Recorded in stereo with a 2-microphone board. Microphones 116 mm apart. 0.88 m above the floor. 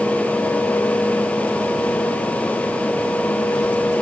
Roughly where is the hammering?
I don't hear hammering.